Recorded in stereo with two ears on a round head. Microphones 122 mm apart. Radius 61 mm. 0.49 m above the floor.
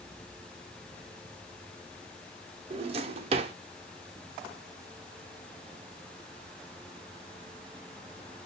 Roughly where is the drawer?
Right.